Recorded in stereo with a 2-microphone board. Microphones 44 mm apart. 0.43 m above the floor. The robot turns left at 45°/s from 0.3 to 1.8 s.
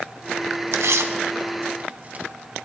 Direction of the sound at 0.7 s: 80° right.